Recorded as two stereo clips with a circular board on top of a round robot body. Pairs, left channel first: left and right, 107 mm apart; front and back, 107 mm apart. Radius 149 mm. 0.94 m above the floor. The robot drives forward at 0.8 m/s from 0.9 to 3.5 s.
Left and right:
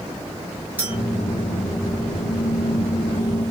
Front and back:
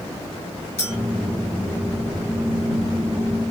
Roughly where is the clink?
Ahead.